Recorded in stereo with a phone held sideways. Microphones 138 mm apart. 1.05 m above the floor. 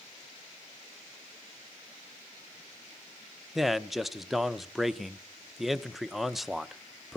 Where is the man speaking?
Centre (ahead or behind), 0.6 m.